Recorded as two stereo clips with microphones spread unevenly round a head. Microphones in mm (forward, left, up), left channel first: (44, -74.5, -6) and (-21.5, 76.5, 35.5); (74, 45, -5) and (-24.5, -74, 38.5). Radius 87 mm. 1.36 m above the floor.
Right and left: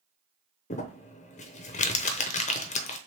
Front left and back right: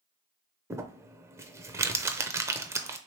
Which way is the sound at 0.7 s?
50° right.